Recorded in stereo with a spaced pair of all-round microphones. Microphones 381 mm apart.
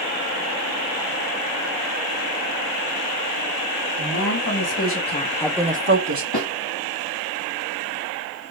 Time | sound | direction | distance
4.0 | a woman speaking | 55° left (ahead or behind) | 2 m
6.3 | a snare drum | 85° left | 3 m